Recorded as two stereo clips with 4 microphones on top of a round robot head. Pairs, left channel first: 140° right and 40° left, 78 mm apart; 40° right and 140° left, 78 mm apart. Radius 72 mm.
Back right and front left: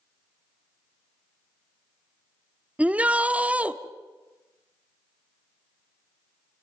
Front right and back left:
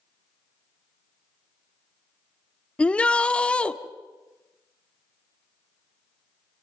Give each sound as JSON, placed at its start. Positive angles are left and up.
{"t": 2.8, "sound": "a shout", "azimuth_deg": 5, "distance_m": 1.1}